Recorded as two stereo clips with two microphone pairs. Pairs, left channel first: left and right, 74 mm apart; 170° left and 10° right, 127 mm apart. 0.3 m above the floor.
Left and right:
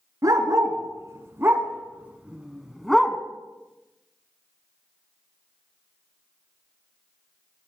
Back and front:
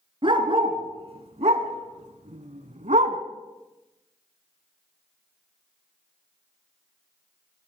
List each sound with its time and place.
0.2 s a dog barking: 55° right, 1.7 m; by 3.2 s 5° left, 1.2 m